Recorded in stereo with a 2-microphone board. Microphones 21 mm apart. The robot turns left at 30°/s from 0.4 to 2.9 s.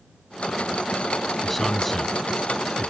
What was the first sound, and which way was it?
A man speaking, 10° left (ahead or behind).